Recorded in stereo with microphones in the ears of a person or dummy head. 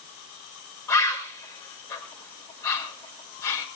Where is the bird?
20° left (ahead or behind), 5.5 m.